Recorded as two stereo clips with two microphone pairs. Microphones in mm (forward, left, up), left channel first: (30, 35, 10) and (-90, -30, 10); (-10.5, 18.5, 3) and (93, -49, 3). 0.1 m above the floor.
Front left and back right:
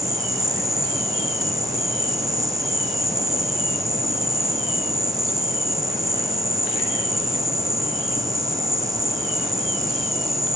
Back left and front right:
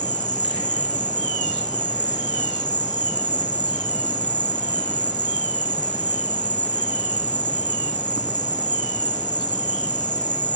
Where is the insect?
145° left, 1.8 m.